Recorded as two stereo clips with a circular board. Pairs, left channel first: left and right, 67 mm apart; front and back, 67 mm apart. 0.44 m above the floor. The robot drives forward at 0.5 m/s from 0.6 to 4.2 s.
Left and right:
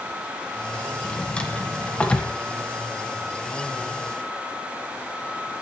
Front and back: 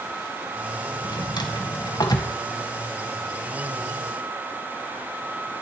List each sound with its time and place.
1.0 s a drawer: 15° left, 2 m; by 2.3 s 20° left, 1.5 m